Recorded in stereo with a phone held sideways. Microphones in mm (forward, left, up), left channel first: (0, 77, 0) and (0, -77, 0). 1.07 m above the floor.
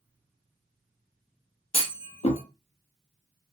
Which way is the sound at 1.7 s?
40° left (ahead or behind).